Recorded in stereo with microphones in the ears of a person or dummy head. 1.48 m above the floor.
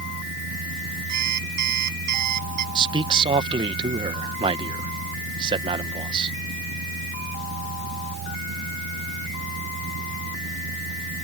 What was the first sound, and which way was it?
A fan, 85° right.